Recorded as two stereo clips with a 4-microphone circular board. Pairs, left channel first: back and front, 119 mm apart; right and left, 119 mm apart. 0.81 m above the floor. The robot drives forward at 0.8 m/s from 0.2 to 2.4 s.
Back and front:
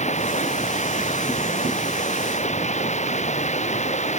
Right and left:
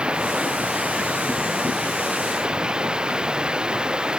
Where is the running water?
170° left.